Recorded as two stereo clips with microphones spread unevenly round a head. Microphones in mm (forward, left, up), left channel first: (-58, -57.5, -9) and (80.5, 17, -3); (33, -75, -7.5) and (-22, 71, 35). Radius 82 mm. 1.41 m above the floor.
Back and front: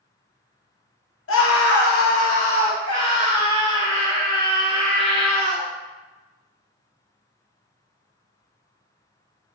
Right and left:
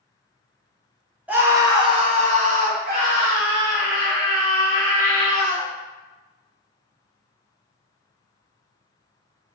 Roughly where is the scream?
Behind.